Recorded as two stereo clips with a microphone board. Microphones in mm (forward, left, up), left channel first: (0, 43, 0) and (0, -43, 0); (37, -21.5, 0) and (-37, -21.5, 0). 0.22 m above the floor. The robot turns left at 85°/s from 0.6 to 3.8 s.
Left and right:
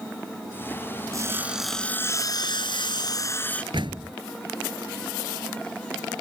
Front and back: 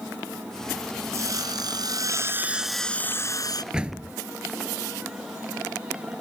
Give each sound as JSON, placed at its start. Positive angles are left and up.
{"t": 1.1, "sound": "sawing", "azimuth_deg": -135}
{"t": 3.7, "sound": "a door slam", "azimuth_deg": -100}